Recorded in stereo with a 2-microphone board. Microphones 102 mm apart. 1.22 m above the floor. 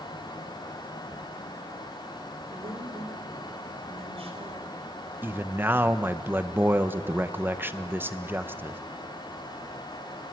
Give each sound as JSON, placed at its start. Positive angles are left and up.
{"t": 2.5, "sound": "a woman speaking", "side_deg": -75, "distance_m": 3.5}
{"t": 5.2, "sound": "a man speaking", "side_deg": -20, "distance_m": 0.9}